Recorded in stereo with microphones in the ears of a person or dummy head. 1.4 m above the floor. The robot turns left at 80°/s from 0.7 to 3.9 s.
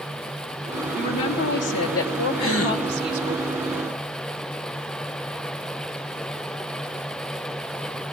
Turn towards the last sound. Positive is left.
turn(degrees=-5)